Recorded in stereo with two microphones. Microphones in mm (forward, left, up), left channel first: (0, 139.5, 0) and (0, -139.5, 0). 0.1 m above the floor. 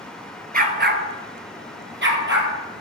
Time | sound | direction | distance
0.5 | a dog barking | 30° right (ahead or behind) | 0.8 m